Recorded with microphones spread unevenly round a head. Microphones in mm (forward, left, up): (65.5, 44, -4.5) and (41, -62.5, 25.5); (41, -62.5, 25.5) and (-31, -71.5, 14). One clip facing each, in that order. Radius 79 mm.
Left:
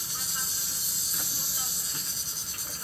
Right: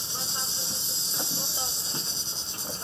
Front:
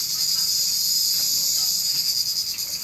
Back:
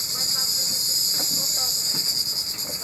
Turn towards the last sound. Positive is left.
turn(degrees=180)